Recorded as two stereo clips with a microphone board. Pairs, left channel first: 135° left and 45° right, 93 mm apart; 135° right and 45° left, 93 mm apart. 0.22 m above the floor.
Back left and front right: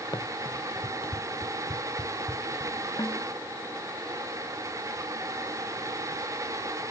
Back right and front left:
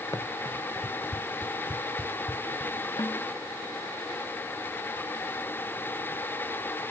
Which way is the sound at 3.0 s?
Straight behind.